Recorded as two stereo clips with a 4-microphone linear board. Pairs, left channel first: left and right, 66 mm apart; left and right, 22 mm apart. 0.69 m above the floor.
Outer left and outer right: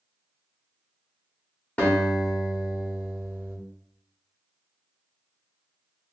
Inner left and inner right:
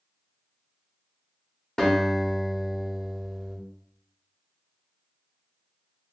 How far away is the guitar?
About 1.7 m.